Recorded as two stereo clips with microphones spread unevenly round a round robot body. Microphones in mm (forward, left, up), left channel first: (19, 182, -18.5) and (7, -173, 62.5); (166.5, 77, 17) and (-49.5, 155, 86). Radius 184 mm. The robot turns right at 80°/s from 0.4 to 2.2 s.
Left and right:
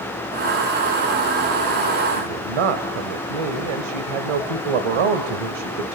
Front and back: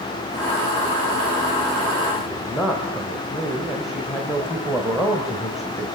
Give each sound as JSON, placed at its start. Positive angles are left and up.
{"t": 2.1, "sound": "a man speaking", "azimuth_deg": -110, "distance_m": 2.0}